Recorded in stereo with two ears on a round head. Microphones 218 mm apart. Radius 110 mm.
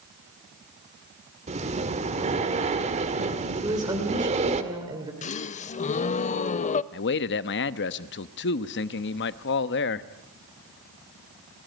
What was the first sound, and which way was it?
Breathing, 25° right (ahead or behind).